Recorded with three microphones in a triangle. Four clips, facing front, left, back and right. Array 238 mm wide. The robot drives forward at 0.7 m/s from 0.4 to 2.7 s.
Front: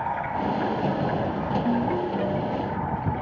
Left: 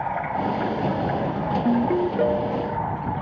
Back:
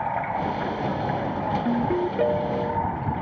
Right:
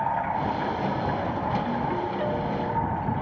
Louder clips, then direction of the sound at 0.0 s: Left 1 dB, back 1 dB; 130° left.